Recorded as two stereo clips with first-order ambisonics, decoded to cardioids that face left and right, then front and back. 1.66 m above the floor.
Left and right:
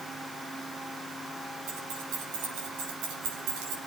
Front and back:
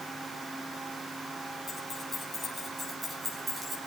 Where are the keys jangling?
75° right, 5.5 m; by 3.8 s 105° right, 4 m.